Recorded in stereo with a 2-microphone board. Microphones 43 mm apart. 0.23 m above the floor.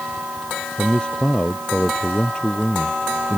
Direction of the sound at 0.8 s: 20° left (ahead or behind).